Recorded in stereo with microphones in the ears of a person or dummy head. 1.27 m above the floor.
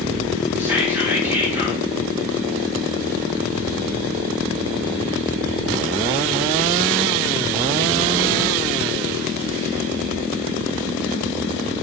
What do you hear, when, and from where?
0.6 s whispering: 10° right (ahead or behind), 0.8 m